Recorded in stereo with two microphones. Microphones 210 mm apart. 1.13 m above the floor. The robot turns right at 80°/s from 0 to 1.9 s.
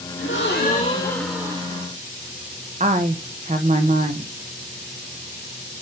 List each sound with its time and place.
0.2 s a gasp: 95° left, 1.4 m; by 1.9 s 130° right, 1.4 m
2.8 s a woman speaking: 35° right (ahead or behind), 0.6 m